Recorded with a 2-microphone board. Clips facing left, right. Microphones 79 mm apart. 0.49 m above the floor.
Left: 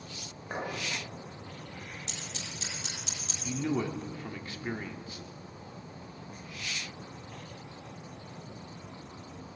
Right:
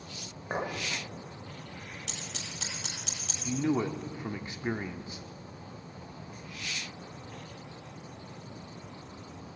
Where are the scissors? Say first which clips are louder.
Even; 70° right (ahead or behind), 7.5 m.